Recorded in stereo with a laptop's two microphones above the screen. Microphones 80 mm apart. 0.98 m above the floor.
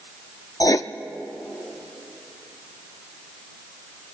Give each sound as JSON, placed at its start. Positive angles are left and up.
{"t": 0.6, "sound": "writing", "side_deg": 45, "distance_m": 0.5}